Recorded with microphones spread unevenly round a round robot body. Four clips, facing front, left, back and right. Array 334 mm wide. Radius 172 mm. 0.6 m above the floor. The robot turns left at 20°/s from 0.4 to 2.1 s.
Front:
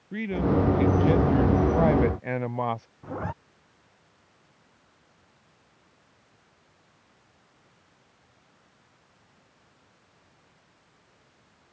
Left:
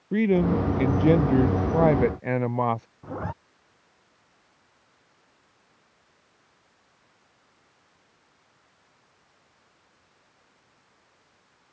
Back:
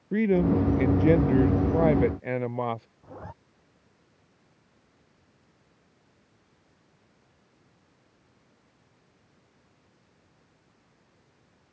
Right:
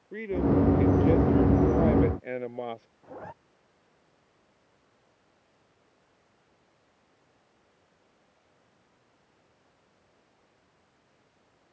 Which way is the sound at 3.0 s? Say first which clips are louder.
Left 8 dB, front 9 dB; 50° left.